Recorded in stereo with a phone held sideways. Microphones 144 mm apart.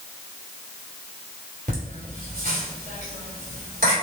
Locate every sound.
1.7 s laughter: 85° right, 3 m